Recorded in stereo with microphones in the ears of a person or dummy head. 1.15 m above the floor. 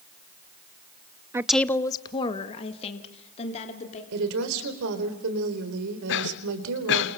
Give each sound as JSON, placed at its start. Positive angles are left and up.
{"t": 1.3, "sound": "a woman speaking", "side_deg": -15, "distance_m": 0.5}
{"t": 4.1, "sound": "a woman speaking", "side_deg": -70, "distance_m": 3.5}
{"t": 6.1, "sound": "a cough", "side_deg": 65, "distance_m": 1.5}